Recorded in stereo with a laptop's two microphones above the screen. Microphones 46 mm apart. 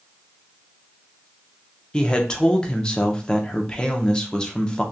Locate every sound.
1.9 s a man speaking: 20° left (ahead or behind), 0.5 m